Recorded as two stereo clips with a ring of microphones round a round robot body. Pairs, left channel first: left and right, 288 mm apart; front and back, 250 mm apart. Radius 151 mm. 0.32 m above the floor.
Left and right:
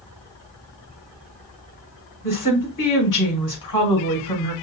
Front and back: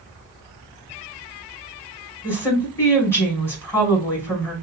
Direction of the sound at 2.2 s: 80° left.